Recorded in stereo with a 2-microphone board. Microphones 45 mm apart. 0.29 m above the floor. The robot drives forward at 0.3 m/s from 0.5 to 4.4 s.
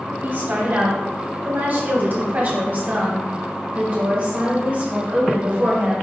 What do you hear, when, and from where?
0.2 s a woman speaking: 45° right (ahead or behind), 1.3 m; by 5.9 s 30° right (ahead or behind), 1.7 m